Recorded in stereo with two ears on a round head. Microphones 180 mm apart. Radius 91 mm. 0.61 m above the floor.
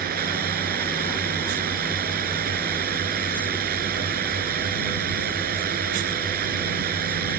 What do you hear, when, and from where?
0.0 s a drone: 50° right (ahead or behind)